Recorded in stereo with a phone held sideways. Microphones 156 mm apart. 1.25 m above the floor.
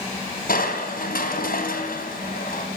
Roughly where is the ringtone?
I don't hear a ringtone.